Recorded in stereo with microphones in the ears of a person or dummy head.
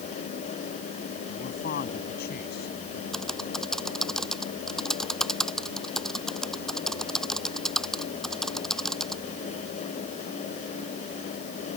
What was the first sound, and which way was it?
A man speaking, 50° left (ahead or behind).